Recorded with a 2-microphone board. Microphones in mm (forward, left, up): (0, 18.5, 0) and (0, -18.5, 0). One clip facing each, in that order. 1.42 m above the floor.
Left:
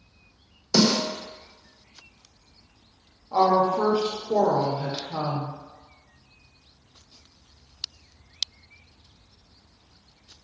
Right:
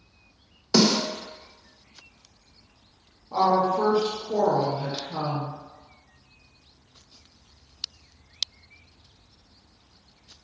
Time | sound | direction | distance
0.7 | a snare drum | 30° right (ahead or behind) | 1.4 m
3.3 | a woman speaking | 20° left (ahead or behind) | 0.7 m